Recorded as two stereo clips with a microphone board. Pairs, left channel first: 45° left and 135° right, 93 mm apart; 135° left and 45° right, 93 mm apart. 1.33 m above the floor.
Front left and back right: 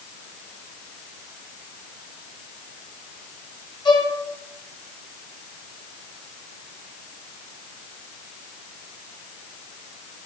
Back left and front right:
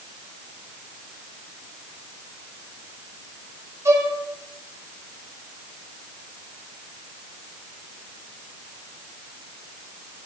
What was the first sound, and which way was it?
A violin, 15° left.